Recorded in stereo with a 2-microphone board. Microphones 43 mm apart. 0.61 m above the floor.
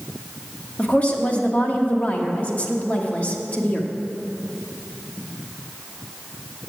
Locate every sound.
0.8 s a woman speaking: 35° left (ahead or behind), 1.3 m